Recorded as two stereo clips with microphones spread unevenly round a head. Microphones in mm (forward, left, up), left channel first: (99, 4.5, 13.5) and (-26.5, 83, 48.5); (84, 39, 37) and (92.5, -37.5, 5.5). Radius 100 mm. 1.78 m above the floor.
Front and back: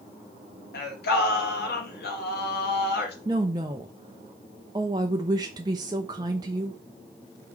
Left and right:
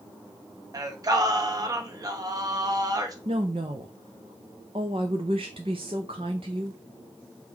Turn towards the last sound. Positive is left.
turn(degrees=-145)